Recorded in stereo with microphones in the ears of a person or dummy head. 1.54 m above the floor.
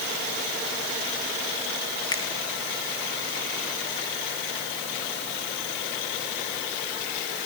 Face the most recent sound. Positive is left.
turn(degrees=25)  # may be behind; listen again after turning